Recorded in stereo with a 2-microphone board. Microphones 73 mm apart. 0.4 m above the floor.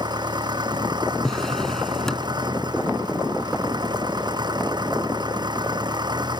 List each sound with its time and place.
0.0 s an engine running: 75° right (ahead or behind)
1.2 s a drawer: 5° left (ahead or behind)